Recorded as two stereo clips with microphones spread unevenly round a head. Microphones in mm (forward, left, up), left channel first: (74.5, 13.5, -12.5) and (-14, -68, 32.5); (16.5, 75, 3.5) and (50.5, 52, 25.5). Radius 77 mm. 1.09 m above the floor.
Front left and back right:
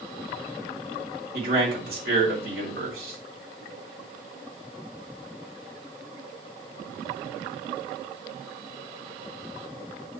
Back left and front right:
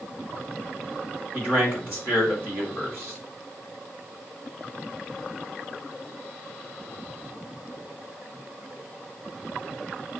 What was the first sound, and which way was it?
A man speaking, 145° right.